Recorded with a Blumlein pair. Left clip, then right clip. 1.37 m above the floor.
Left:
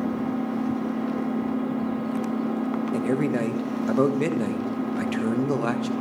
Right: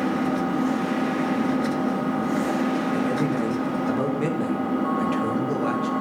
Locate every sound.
0.0 s an engine running: 35° right, 1.9 m
2.9 s a man speaking: 15° left, 1.3 m